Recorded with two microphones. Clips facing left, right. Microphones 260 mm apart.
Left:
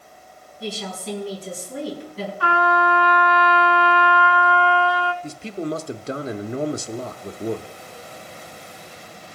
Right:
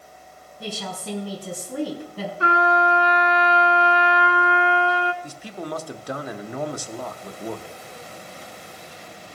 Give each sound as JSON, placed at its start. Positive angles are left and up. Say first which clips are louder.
{"t": 0.6, "sound": "a woman speaking", "louder": "left 2 dB", "side_deg": -60, "distance_m": 5.0}
{"t": 2.4, "sound": "a trumpet", "louder": "right 1 dB", "side_deg": -25, "distance_m": 1.0}
{"t": 5.2, "sound": "a man speaking", "louder": "left 6 dB", "side_deg": 25, "distance_m": 0.6}